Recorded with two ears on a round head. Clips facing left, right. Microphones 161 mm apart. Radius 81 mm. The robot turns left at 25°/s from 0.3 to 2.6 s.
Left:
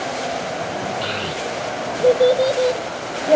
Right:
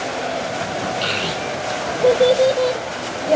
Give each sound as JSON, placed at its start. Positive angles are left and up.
{"t": 1.0, "sound": "a child speaking", "side_deg": -25, "distance_m": 0.5}